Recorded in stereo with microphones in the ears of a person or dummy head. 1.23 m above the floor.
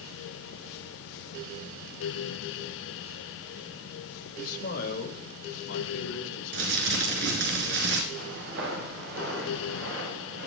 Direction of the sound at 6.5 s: 60° right (ahead or behind).